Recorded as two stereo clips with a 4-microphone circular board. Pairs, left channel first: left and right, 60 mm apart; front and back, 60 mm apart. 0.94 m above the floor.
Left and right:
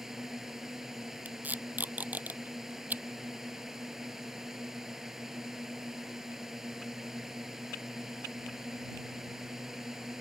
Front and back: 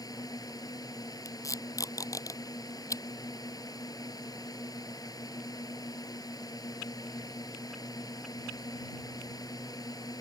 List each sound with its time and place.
0.0 s a drone: 5° right
1.2 s tape being pulled: 25° right